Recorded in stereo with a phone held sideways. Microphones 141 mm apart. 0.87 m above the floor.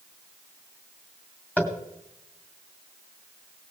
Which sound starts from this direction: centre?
Tapping, at 1.6 s.